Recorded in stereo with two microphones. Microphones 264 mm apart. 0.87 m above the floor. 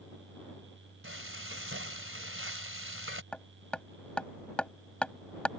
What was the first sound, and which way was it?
Frying, 55° right (ahead or behind).